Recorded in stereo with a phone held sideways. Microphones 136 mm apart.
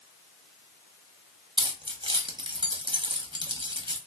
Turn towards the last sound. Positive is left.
turn(degrees=-40)  # may be behind; listen again after turning